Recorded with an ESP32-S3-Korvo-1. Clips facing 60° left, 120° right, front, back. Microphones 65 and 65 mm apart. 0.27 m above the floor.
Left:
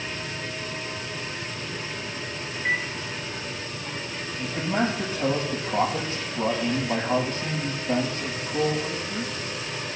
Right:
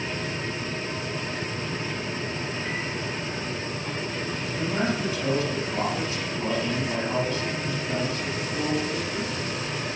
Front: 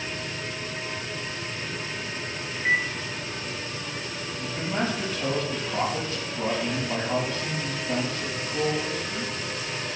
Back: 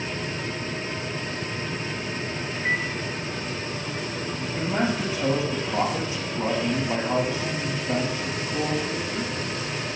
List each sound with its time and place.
2.5 s a microwave: 90° left, 3.5 m
4.4 s a man speaking: 100° left, 5.5 m